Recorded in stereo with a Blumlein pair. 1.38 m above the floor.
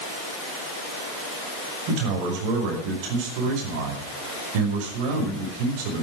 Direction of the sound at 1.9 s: 45° right.